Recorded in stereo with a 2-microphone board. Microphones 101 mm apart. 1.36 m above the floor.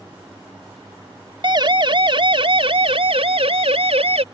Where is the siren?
45° right (ahead or behind); by 4.2 s 75° right (ahead or behind).